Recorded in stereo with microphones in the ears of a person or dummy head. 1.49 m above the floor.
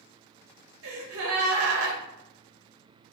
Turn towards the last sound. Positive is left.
turn(degrees=-70)  # may be behind; listen again after turning